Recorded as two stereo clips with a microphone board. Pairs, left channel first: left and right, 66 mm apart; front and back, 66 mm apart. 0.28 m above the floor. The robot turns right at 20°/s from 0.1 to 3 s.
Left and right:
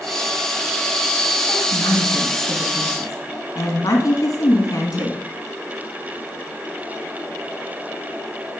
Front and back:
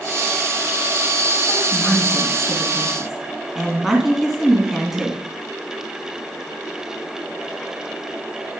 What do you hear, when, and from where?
1.5 s a woman speaking: 65° left, 2.5 m; by 5.2 s 95° left, 2.5 m